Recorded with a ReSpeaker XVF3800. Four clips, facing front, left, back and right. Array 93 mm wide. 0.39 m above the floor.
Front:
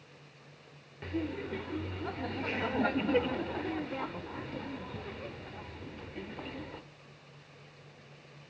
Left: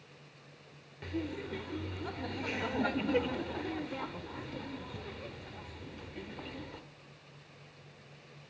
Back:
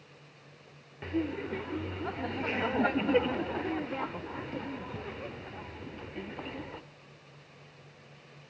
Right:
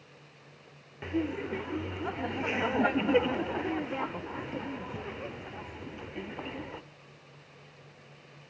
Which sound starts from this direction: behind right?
Laughter, at 1.0 s.